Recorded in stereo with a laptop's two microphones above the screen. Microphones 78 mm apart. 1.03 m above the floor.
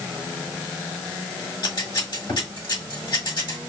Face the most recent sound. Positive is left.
turn(degrees=70)  # may be behind; listen again after turning